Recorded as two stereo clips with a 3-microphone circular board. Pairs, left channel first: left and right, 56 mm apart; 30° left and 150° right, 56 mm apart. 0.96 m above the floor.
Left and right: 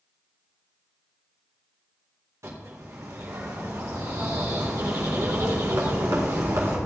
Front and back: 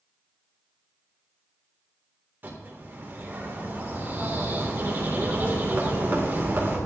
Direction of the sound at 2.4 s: 100° right.